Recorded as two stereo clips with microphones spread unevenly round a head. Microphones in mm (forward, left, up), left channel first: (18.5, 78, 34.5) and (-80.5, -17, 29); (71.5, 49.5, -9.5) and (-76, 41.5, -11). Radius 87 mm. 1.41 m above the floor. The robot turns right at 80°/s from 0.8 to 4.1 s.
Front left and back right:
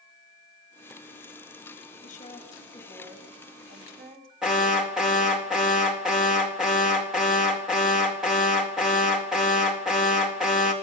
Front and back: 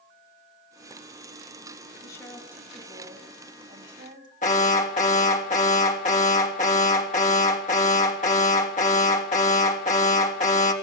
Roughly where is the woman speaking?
Ahead left.